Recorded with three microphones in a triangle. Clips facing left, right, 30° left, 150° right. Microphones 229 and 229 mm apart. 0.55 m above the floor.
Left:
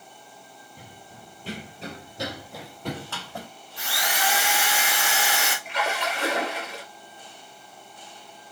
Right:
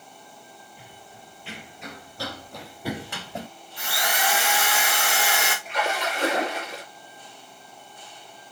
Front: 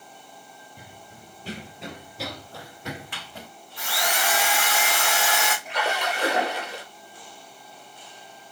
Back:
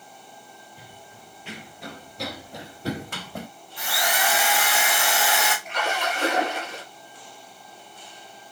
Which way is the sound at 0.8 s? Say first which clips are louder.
Left 1 dB, front 1 dB; 55° left.